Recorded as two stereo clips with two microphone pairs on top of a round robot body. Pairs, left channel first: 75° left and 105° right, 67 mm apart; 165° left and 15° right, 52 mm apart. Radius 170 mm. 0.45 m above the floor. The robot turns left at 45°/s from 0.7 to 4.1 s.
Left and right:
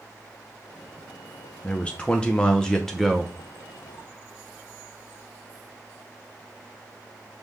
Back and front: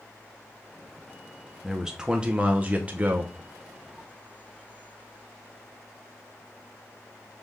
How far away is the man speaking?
About 0.9 m.